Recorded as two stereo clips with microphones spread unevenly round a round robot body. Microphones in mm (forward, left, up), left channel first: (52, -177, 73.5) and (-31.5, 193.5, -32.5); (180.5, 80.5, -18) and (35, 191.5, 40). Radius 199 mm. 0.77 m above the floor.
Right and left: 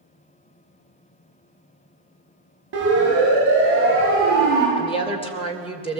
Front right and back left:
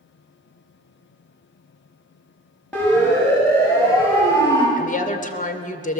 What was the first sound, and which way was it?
A siren, 45° left.